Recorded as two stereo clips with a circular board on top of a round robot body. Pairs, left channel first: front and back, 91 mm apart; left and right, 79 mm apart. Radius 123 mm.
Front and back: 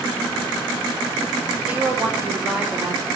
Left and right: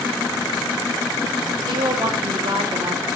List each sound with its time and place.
1.6 s a woman speaking: 105° right, 2.5 m; by 3.0 s 85° right, 3 m